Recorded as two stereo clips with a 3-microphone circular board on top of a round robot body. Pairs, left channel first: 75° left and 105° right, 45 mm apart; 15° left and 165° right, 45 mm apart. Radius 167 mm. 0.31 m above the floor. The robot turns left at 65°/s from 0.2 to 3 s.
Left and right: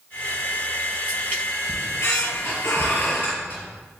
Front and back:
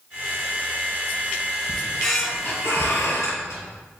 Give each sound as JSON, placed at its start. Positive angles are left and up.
{"t": 1.7, "sound": "a squeak", "azimuth_deg": 115, "distance_m": 4.0}